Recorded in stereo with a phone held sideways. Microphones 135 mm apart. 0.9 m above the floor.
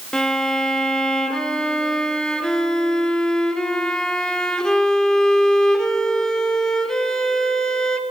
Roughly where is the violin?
Centre.